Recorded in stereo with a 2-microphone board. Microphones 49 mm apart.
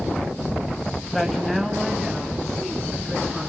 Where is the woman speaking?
5° left (ahead or behind), 2.5 m; by 3.5 s centre (ahead or behind), 6 m.